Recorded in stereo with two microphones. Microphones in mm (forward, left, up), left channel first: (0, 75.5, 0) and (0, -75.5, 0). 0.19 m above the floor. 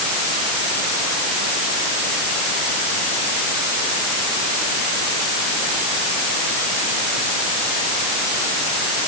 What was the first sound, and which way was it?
Only background noise.